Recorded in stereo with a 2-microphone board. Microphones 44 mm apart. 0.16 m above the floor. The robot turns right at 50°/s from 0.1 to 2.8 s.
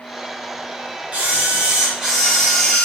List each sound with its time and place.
1.1 s a camera shutter: 75° right, 1.4 m; by 2.9 s 10° left, 1.4 m